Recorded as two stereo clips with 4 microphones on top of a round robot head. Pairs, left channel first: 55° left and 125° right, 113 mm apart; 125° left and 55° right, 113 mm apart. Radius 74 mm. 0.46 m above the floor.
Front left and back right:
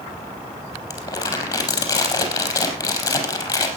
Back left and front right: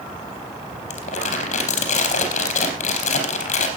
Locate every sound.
0.9 s crumpling: 110° left, 4.5 m